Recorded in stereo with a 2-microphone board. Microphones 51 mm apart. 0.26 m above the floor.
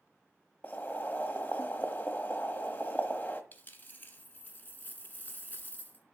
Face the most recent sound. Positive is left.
turn(degrees=35)  # may be behind; listen again after turning